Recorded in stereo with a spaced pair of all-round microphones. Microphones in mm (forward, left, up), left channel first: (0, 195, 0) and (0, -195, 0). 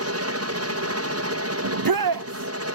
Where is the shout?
60° right (ahead or behind).